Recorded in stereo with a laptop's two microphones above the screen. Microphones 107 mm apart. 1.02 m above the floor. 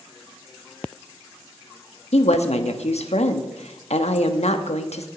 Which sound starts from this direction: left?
A woman speaking, at 2.1 s.